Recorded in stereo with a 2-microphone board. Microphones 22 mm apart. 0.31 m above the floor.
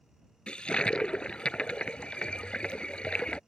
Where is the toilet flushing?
50° left (ahead or behind).